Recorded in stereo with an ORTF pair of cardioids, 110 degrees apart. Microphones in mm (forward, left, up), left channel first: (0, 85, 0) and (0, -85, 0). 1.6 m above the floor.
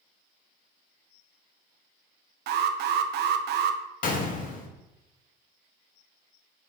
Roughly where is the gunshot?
Ahead left.